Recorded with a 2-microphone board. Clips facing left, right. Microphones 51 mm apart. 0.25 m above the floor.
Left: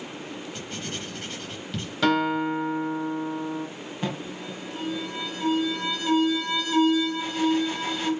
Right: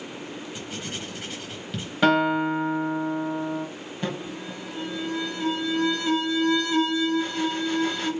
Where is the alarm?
5° left (ahead or behind), 1.4 m.